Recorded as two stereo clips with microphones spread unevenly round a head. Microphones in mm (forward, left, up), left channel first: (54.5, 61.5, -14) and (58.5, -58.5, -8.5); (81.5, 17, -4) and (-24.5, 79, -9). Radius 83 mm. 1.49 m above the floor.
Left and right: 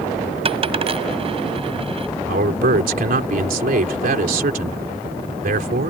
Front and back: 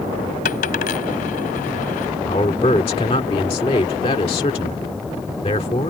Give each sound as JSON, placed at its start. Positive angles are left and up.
{"t": 0.5, "sound": "a dropped coin", "azimuth_deg": -50}
{"t": 2.2, "sound": "a man speaking", "azimuth_deg": -90}